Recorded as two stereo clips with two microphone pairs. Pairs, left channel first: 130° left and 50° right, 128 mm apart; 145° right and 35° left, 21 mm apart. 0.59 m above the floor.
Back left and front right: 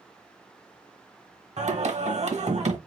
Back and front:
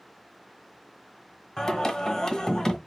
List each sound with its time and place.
1.6 s singing: 80° right, 1.1 m